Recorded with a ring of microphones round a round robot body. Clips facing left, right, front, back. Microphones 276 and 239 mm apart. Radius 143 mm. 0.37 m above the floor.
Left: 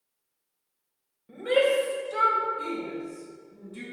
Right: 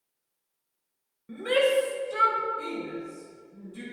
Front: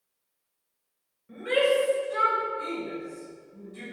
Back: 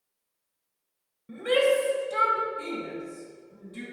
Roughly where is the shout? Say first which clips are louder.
Left 1 dB, back 1 dB; behind right.